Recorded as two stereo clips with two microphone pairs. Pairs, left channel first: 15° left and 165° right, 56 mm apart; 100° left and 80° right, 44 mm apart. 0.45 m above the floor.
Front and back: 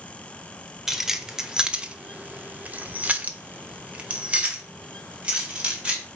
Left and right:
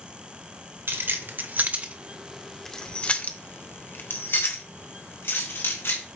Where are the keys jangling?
85° right, 1.0 m; by 6.0 s 120° left, 2 m.